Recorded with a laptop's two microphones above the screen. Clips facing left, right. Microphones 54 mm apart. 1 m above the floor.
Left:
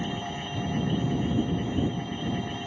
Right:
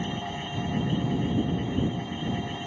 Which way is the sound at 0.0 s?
Centre (ahead or behind).